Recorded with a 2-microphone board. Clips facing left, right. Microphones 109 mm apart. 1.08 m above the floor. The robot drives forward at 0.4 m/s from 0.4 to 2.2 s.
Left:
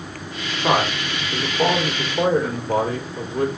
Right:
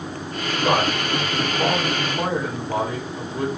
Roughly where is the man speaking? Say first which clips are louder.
Left 1 dB; left.